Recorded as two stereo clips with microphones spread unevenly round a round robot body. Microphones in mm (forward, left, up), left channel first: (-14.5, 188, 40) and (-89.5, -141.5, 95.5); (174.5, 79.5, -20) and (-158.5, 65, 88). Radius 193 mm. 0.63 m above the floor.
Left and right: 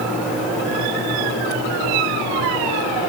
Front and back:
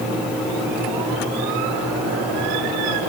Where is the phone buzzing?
I don't hear a phone buzzing.